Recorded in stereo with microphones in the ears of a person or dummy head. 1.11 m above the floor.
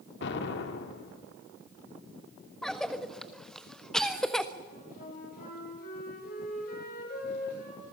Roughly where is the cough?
Centre.